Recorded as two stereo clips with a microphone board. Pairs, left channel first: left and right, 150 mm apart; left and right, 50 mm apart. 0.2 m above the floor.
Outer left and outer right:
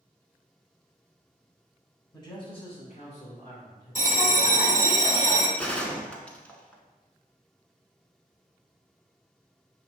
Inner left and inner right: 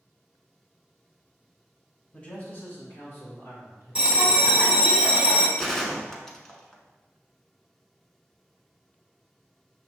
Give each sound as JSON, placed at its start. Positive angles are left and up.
{"t": 2.1, "sound": "a man speaking", "side_deg": 25, "distance_m": 1.3}
{"t": 4.0, "sound": "a bell", "side_deg": -20, "distance_m": 1.0}
{"t": 5.6, "sound": "a gunshot", "side_deg": 10, "distance_m": 0.7}